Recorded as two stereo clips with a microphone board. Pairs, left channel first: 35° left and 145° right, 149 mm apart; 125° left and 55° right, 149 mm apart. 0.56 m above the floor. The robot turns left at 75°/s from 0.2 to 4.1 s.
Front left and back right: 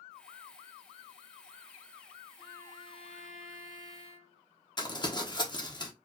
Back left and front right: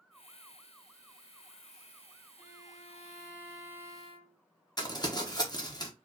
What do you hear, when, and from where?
2.4 s a violin: 125° left, 1.6 m; by 4.4 s 5° right, 1.6 m
4.8 s crumpling: 80° left, 1.0 m